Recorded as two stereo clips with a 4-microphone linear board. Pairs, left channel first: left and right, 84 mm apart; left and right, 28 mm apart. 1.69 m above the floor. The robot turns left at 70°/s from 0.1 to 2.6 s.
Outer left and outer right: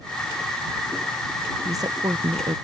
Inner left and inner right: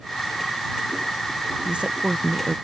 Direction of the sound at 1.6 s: 40° right.